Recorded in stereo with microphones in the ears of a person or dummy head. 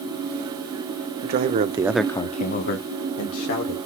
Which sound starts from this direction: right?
A man speaking, at 1.2 s.